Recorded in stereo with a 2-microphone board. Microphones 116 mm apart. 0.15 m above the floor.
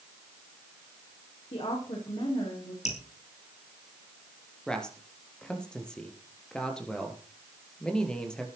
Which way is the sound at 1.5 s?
65° left (ahead or behind).